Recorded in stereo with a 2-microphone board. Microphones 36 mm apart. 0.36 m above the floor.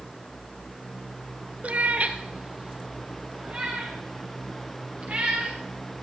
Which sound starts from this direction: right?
A cat meowing, at 1.6 s.